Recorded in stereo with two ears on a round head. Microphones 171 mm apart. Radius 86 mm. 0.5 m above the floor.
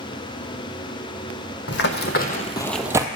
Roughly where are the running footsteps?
Left.